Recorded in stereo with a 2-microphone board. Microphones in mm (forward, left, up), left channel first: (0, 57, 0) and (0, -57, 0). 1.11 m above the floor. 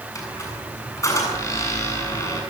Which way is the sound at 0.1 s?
30° left (ahead or behind).